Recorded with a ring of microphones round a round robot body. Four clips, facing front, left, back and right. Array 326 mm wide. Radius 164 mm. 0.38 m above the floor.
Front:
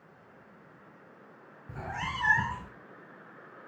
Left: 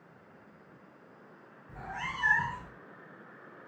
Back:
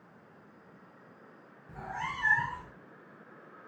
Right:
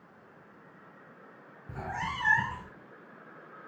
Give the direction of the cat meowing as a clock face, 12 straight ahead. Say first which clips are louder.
Right 4 dB, front 1 dB; 2 o'clock.